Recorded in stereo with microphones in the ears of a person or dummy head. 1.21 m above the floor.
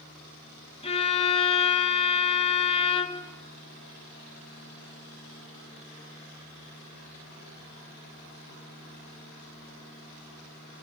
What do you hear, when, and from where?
0.8 s a violin: 35° left (ahead or behind), 1.1 m